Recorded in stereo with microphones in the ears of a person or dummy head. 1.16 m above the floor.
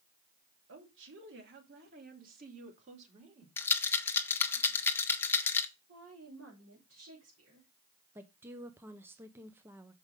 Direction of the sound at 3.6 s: 15° left (ahead or behind).